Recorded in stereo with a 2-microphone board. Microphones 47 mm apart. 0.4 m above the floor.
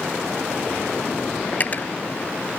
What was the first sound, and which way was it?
Cutlery clinking, 35° left (ahead or behind).